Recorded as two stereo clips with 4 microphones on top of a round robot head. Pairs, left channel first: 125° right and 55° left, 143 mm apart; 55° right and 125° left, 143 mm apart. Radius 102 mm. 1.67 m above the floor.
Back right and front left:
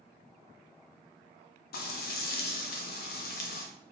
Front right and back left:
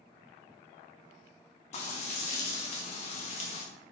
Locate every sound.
1.7 s frying: 105° right, 0.5 m